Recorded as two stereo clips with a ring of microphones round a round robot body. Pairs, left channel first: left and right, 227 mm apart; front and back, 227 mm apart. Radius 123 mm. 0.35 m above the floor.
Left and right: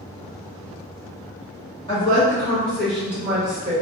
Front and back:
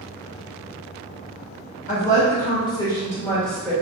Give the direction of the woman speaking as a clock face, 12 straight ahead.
11 o'clock.